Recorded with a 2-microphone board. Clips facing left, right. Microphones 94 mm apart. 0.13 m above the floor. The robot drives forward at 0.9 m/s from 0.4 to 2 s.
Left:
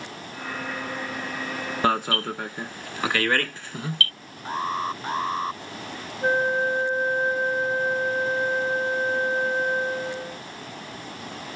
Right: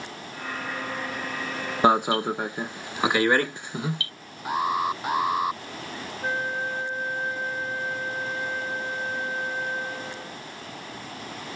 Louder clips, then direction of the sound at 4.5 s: Right 2 dB; 10° right (ahead or behind).